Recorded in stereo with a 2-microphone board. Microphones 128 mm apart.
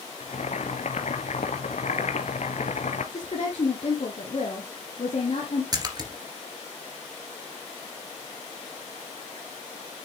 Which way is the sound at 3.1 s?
50° left (ahead or behind).